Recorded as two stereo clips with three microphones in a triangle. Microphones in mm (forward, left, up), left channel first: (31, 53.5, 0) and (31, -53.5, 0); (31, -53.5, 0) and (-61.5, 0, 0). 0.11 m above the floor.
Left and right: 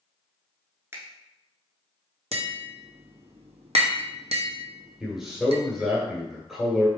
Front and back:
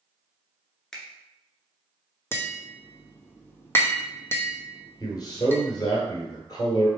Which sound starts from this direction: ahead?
A man speaking, at 5.0 s.